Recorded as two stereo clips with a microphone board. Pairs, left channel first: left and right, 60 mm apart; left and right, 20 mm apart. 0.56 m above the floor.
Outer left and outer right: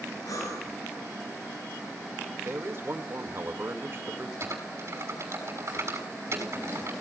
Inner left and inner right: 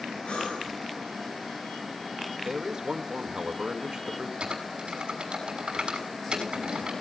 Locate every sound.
0.2 s breathing: 75° left (ahead or behind), 10 m
2.4 s a man speaking: 45° right (ahead or behind), 2 m
4.4 s typing on a keyboard: 50° right (ahead or behind), 6 m